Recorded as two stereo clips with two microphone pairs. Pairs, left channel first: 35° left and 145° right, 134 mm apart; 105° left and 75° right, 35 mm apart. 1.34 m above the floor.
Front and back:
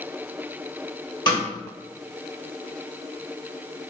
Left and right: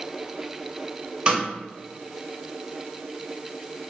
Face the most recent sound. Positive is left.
turn(degrees=-20)